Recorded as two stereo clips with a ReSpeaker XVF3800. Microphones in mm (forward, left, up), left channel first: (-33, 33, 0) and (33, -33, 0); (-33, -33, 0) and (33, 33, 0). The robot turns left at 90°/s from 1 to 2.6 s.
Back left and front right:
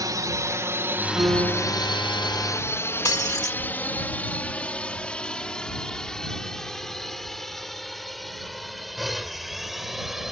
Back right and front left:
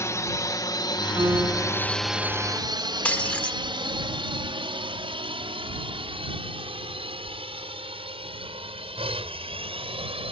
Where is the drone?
85° right; by 10.3 s 40° left.